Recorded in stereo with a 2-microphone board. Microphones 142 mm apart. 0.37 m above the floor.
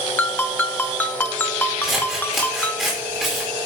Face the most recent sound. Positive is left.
turn(degrees=0)  # may be behind; listen again after turning